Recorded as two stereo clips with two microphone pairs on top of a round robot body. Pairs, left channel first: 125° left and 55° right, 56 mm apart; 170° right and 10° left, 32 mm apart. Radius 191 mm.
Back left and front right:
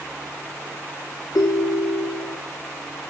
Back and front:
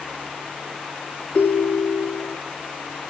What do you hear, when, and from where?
1.4 s a ringtone: 140° left, 0.5 m